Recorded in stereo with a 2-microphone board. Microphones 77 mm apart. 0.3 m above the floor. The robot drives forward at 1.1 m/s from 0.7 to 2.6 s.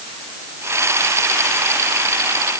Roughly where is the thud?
No thud in this recording.